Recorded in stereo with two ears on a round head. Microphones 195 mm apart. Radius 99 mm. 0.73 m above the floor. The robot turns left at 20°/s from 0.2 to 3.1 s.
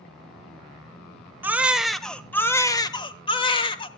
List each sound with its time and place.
1.4 s a baby crying: 170° right, 1.1 m; by 3.9 s 155° left, 1.1 m